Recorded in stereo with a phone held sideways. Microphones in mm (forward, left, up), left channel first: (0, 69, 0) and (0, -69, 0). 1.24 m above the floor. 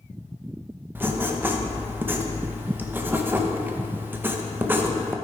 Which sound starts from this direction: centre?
Writing, at 0.9 s.